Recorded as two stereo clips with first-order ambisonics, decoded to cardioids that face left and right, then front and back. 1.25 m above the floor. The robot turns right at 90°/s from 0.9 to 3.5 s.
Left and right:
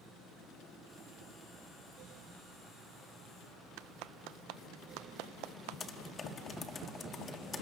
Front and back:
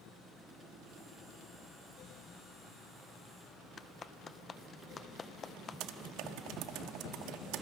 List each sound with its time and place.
3.8 s a clap: 70° right, 0.5 m
5.8 s typing on a keyboard: 160° left, 1.3 m